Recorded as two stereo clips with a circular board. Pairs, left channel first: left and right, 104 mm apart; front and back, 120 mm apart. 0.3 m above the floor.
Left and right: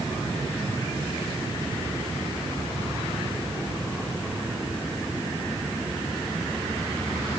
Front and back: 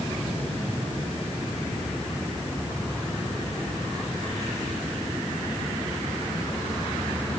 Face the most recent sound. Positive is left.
No sound to turn to.